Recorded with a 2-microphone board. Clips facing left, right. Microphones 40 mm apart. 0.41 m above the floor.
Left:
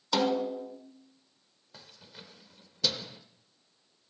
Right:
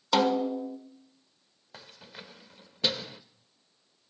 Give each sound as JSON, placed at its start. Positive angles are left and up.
{"t": 0.1, "sound": "a snare drum", "side_deg": -25, "distance_m": 1.2}
{"t": 1.7, "sound": "keys jangling", "side_deg": -30, "distance_m": 0.6}